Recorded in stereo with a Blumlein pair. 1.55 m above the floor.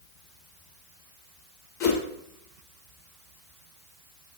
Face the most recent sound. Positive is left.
turn(degrees=40)